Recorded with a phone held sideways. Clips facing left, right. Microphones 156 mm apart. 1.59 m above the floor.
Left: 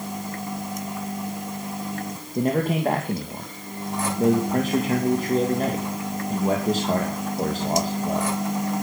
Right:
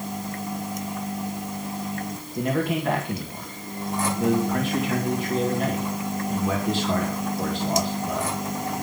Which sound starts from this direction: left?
A man speaking, at 2.4 s.